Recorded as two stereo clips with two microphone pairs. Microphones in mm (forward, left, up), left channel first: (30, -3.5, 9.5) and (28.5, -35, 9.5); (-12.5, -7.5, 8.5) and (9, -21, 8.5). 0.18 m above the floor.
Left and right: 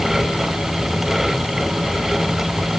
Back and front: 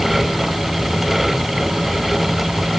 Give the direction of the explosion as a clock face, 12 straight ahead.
No explosion in this recording.